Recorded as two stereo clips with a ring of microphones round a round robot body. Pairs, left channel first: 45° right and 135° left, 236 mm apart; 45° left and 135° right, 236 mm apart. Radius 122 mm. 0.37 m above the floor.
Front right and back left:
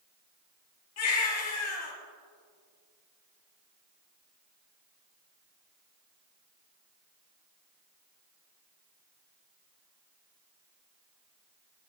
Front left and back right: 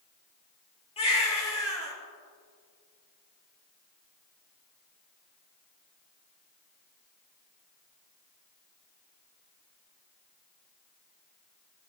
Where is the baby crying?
20° right, 5 m.